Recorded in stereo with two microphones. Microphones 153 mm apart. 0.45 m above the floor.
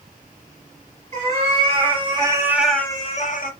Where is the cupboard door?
No cupboard door in this recording.